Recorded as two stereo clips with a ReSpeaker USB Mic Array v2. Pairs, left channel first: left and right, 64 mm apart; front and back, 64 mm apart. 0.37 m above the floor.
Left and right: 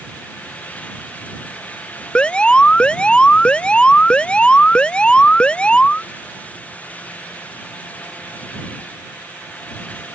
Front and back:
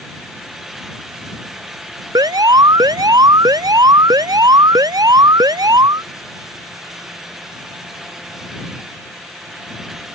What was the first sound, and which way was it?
An alarm, 165° left.